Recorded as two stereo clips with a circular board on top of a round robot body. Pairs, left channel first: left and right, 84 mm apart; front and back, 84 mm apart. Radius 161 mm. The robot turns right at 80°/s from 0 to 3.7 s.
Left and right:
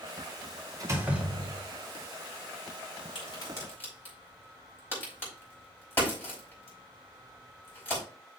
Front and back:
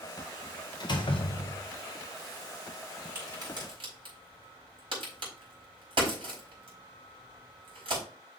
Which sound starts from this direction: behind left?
A crack, at 3.1 s.